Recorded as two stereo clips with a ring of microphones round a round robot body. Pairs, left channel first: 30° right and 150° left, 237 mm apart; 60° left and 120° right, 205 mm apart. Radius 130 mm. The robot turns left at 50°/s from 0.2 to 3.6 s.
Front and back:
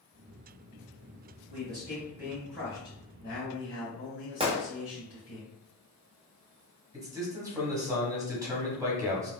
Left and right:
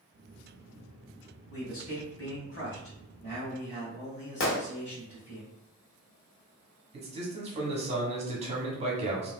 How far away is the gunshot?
About 0.9 m.